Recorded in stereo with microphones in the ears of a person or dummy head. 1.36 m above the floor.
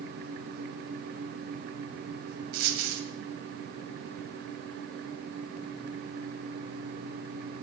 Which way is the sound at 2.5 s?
55° right (ahead or behind).